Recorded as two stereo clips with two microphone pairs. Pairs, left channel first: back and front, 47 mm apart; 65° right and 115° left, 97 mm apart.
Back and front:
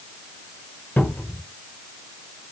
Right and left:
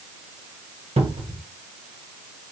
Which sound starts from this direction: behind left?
A cupboard door, at 1.0 s.